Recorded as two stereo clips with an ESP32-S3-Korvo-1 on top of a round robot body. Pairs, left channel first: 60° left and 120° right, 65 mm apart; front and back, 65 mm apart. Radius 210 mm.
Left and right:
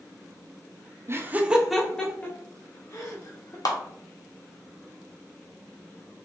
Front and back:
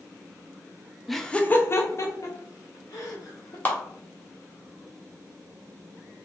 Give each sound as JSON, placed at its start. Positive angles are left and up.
{"t": 1.1, "sound": "laughter", "azimuth_deg": -90, "distance_m": 0.8}
{"t": 3.6, "sound": "a clap", "azimuth_deg": 55, "distance_m": 1.2}